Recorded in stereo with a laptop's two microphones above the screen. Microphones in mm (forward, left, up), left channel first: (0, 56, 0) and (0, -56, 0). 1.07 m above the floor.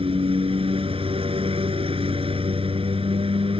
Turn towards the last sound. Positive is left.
turn(degrees=-55)  # may be behind; listen again after turning